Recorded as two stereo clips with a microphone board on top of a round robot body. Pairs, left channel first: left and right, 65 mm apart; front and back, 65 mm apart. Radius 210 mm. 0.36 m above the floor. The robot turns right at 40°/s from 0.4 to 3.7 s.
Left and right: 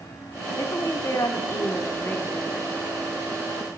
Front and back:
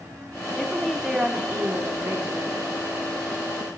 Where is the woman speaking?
85° left, 1.4 m; by 2.7 s 170° left, 1.4 m.